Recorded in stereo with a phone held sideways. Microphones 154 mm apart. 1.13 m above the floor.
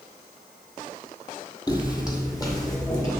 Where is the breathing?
I don't hear breathing.